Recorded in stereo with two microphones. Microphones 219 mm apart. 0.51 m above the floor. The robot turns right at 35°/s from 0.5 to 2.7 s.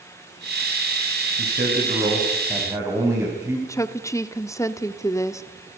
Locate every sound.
1.4 s a man speaking: 60° right, 4.5 m; by 3.6 s 15° right, 4.5 m
3.7 s a woman speaking: 15° left (ahead or behind), 0.9 m